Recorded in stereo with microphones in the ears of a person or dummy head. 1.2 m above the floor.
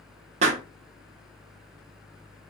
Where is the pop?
45° right (ahead or behind), 0.6 m.